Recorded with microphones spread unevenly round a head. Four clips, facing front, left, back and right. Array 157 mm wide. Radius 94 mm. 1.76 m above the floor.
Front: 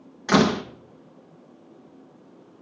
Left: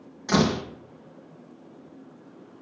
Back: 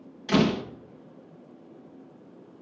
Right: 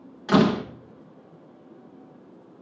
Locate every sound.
0.3 s a door slam: 15° right, 1.8 m